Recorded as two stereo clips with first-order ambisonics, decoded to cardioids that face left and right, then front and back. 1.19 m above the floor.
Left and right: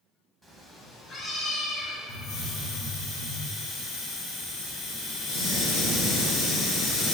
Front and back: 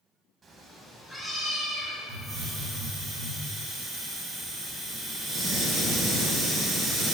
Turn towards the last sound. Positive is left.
turn(degrees=105)